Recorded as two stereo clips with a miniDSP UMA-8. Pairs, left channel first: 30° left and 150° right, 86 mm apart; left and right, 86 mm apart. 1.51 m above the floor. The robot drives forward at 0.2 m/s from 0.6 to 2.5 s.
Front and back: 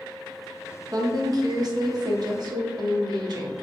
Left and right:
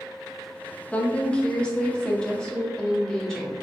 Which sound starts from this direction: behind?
A woman speaking, at 0.9 s.